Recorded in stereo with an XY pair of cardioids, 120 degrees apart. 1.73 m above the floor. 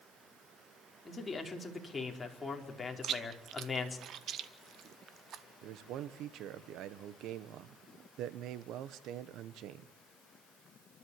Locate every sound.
1.1 s a man speaking: 20° left, 4.5 m
3.0 s chewing: 50° right, 1.6 m
5.6 s a man speaking: 70° right, 1.5 m